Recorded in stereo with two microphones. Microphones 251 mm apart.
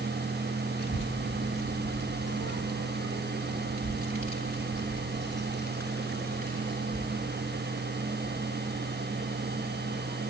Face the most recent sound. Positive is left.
turn(degrees=0)  # may be behind; listen again after turning